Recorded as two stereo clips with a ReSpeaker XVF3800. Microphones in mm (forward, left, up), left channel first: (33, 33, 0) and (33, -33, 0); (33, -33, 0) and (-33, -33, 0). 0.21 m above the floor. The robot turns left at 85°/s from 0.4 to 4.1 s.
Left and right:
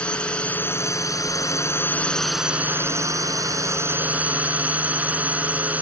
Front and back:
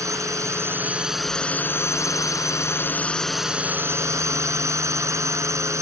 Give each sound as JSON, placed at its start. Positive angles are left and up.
{"t": 0.0, "sound": "a drone", "azimuth_deg": 160}